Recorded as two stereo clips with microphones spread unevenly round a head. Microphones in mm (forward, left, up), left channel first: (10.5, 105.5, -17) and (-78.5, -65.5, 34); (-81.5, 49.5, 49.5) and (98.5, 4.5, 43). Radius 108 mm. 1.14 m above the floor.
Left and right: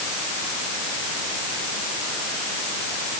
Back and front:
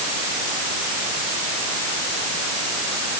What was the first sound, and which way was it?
Only background noise.